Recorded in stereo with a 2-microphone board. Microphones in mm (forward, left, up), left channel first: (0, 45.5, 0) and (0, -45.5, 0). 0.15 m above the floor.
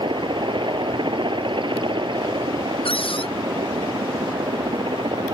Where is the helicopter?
60° right (ahead or behind); by 5.3 s 65° right (ahead or behind).